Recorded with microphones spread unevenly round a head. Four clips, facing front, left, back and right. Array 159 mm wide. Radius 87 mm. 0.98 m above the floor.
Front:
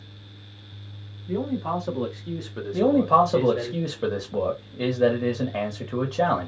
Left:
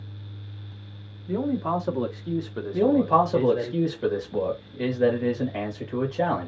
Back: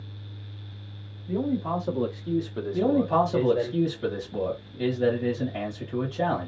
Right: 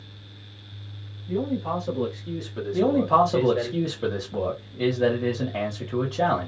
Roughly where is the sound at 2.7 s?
Ahead.